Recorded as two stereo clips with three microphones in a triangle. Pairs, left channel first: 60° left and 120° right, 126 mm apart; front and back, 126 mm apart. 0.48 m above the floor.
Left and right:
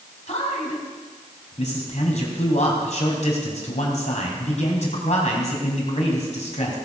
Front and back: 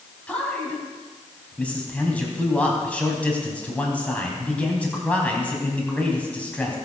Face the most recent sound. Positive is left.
turn(degrees=80)